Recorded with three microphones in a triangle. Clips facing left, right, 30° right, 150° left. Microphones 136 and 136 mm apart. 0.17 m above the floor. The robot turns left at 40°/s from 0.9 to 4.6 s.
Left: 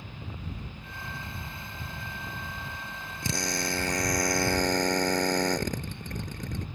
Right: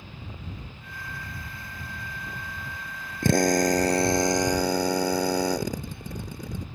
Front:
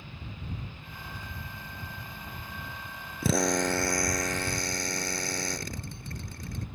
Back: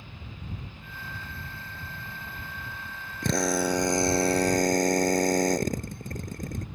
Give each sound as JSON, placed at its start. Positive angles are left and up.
{"t": 3.2, "sound": "a drill", "azimuth_deg": -115}